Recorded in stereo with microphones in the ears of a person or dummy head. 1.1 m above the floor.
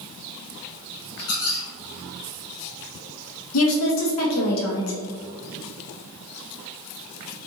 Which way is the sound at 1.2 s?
85° left.